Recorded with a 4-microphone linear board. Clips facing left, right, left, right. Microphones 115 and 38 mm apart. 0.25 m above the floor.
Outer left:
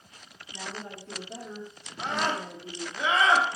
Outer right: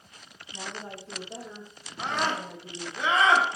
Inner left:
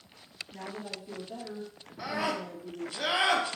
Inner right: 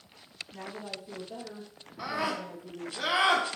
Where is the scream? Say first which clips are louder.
Even, even; 5° left (ahead or behind), 1.2 m.